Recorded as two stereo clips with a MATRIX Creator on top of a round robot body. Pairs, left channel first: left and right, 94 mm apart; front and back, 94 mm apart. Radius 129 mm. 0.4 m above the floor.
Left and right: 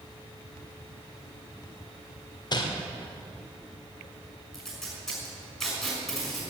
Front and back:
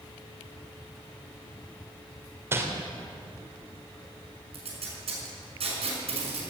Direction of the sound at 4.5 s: Straight behind.